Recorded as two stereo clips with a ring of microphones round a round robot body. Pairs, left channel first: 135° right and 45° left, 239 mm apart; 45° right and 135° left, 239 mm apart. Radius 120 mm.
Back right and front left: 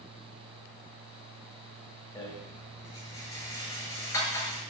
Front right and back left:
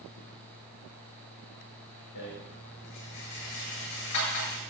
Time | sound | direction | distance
2.1 | a rattle | 60° right | 8 m